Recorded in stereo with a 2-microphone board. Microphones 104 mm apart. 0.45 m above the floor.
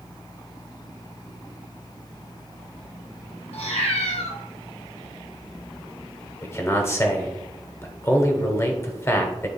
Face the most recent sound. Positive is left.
turn(degrees=25)  # may be behind; listen again after turning